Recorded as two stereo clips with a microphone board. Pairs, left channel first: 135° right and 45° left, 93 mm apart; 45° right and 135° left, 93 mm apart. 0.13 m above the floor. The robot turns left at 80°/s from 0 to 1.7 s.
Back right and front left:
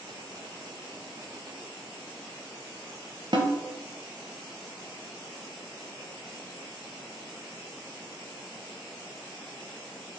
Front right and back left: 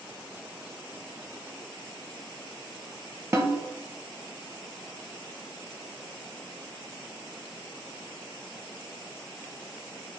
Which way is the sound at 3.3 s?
75° left.